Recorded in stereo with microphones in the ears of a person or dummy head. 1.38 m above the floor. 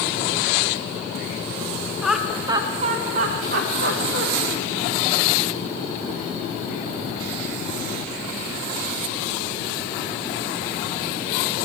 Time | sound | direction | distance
2.0 | laughter | 5° right (ahead or behind) | 0.7 m